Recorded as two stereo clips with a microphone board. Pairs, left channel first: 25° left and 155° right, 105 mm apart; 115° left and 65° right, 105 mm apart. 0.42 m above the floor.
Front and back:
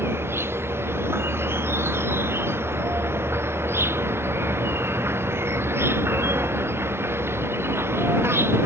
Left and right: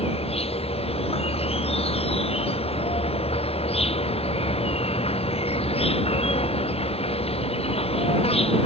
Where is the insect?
135° left.